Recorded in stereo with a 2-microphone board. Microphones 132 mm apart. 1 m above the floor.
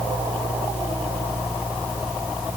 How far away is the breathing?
I don't hear breathing.